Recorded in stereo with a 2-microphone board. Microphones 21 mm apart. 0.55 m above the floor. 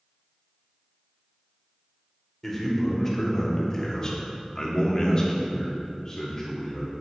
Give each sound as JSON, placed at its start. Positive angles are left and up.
{"t": 2.4, "sound": "a man speaking", "side_deg": 10, "distance_m": 1.7}